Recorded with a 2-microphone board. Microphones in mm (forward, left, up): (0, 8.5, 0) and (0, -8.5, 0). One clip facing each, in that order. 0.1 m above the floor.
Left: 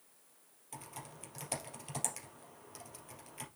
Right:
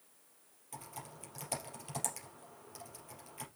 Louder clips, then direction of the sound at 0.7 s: Right 1 dB; 10° left (ahead or behind).